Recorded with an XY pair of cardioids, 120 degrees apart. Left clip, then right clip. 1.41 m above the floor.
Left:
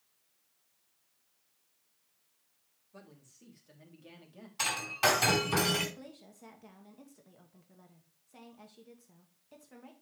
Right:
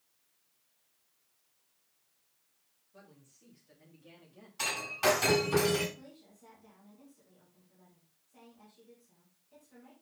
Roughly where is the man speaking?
Ahead left.